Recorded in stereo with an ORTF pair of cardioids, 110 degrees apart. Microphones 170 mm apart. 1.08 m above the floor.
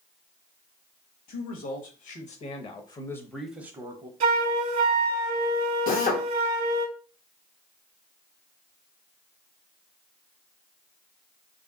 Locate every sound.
1.3 s a man speaking: 65° left, 1.6 m; by 4.1 s 30° right, 0.9 m
4.2 s a flute: 45° right, 1.1 m
5.9 s a drill: 60° left, 1.1 m